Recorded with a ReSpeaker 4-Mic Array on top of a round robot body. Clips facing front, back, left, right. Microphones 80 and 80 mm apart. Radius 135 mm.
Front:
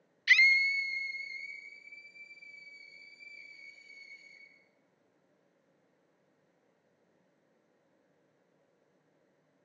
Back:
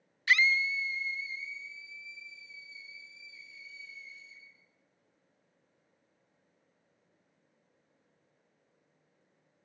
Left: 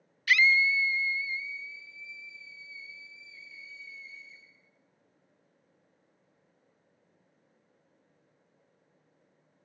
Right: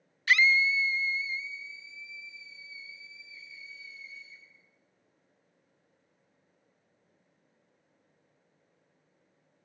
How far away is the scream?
About 0.6 m.